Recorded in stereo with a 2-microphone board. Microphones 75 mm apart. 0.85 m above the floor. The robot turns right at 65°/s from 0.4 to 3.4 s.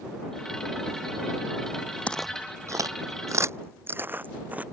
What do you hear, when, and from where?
2.1 s footsteps: 15° left (ahead or behind); by 4.6 s 20° right (ahead or behind)